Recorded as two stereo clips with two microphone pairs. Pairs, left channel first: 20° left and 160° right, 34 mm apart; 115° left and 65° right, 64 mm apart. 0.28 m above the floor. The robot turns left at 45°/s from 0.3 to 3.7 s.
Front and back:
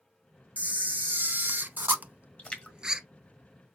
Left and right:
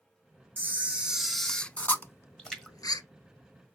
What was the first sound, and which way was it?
A camera shutter, 120° right.